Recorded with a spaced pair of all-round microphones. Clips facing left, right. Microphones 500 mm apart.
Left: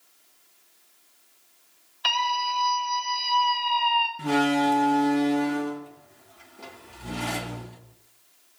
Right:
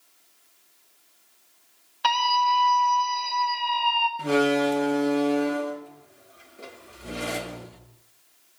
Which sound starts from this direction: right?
A scream, at 2.0 s.